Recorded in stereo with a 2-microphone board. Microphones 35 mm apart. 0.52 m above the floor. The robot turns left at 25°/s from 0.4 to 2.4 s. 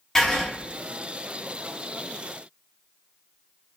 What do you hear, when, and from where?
0.1 s writing: 10° left (ahead or behind), 0.8 m